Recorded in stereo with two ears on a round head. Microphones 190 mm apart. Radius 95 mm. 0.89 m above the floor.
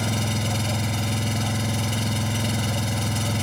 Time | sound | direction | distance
0.0 | an engine running | centre (ahead or behind) | ?